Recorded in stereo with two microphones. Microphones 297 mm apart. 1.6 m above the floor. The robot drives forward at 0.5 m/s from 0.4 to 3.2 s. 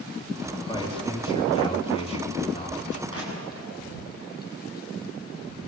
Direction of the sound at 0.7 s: 15° left (ahead or behind).